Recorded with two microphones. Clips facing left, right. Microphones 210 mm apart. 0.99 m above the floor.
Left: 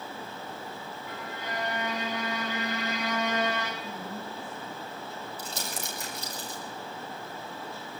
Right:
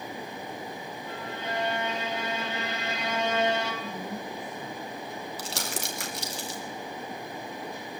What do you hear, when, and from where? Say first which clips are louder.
1.1 s a violin: right 3 dB; 25° right (ahead or behind), 6 m
3.8 s a woman speaking: right 2 dB; 85° right, 6.5 m
5.4 s crumpling: right 3 dB; 80° right, 4 m